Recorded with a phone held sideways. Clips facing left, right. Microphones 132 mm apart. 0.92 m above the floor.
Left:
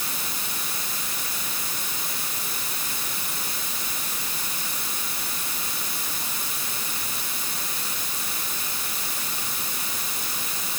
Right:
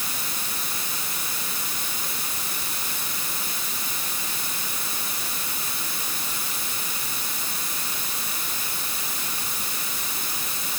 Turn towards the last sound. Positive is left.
No sound to turn to.